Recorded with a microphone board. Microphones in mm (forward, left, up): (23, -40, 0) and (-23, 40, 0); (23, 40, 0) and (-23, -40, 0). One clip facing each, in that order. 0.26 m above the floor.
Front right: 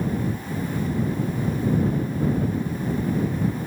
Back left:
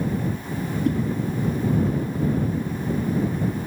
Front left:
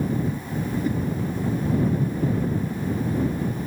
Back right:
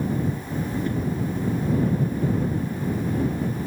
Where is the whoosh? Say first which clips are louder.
Back left 5 dB, front left 4 dB; 140° left.